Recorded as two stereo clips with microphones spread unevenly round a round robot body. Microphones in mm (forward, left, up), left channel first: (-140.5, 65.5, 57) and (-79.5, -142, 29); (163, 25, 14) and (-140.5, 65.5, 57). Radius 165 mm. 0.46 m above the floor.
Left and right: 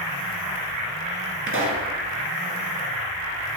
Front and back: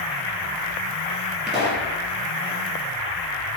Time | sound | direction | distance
1.5 | a pop | 100° right | 2.5 m